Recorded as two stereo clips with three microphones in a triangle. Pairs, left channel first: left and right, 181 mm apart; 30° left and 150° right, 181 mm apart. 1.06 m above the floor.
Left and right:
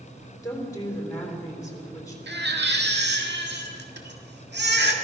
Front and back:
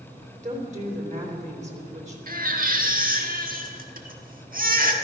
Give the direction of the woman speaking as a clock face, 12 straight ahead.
7 o'clock.